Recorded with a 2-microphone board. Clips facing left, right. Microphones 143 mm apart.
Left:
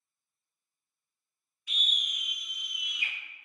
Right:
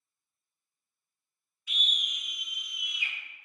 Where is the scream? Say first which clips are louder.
Right 1 dB; 35° left (ahead or behind), 1.0 m; by 3.1 s 65° left (ahead or behind), 1.7 m.